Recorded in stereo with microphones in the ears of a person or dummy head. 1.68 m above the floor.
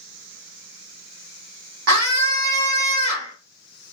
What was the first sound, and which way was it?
A scream, 60° right (ahead or behind).